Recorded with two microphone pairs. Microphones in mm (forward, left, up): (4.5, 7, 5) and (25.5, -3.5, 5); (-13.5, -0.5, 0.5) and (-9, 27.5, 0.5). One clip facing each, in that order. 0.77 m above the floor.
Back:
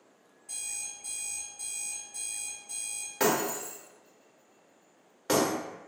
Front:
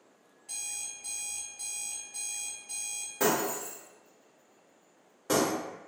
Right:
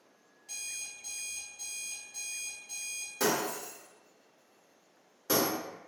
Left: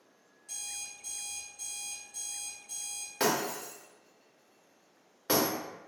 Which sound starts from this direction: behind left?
Breaking glass, at 3.2 s.